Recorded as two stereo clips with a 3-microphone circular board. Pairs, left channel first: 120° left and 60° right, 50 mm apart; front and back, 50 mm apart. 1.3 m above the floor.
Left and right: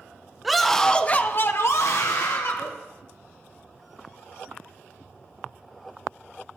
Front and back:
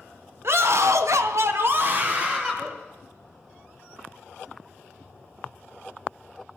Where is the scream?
145° right, 1.1 m; by 2.7 s 110° left, 1.5 m.